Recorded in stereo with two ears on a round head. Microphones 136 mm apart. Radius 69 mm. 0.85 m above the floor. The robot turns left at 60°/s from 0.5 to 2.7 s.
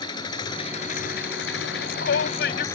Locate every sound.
0.0 s an engine running: 150° left; by 2.8 s 20° left
1.6 s a shout: 120° left; by 2.6 s 55° left